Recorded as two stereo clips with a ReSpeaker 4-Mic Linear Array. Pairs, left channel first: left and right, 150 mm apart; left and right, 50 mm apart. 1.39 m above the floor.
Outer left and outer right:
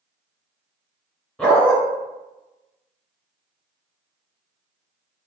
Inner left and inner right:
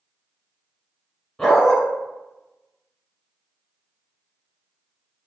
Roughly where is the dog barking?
Centre.